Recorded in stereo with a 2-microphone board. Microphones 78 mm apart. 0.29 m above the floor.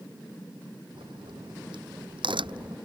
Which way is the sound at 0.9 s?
80° right.